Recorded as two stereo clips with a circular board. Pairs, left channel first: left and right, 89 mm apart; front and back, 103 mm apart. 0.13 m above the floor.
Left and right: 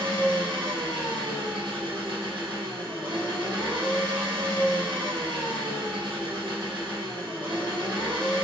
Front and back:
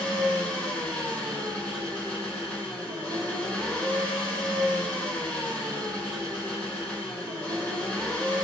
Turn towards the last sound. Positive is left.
turn(degrees=-75)